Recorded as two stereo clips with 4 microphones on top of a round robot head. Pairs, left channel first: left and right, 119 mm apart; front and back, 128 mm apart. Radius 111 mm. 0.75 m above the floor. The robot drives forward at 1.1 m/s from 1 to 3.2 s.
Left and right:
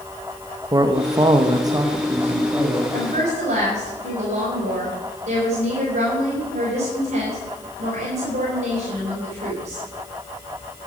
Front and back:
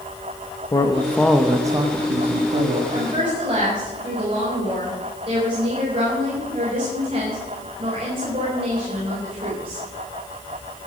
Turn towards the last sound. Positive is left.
turn(degrees=-125)